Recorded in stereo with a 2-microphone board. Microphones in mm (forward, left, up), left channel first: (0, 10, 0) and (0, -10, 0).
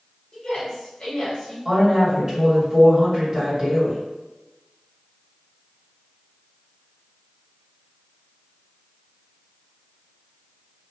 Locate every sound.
0.3 s a woman speaking: 40° left (ahead or behind), 1.1 m
1.6 s a woman speaking: 25° right (ahead or behind), 1.5 m